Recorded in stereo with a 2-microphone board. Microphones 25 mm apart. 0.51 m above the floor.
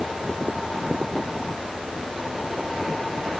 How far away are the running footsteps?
No running footsteps in this recording.